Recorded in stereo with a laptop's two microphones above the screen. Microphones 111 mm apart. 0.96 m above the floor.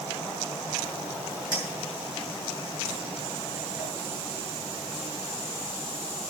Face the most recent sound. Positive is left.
turn(degrees=-35)  # may be behind; listen again after turning